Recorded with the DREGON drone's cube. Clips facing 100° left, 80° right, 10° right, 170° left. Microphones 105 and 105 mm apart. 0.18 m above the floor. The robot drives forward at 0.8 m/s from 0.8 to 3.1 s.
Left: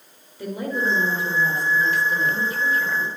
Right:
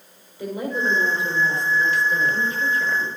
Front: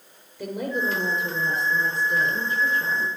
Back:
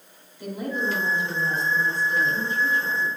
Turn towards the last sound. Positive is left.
turn(degrees=20)